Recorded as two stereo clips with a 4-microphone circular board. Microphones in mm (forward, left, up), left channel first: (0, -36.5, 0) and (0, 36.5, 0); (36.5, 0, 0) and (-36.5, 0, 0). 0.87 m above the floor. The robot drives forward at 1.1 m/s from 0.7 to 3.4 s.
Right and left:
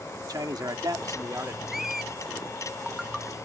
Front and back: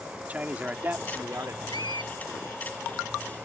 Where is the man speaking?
110° left; by 1.6 s 140° left.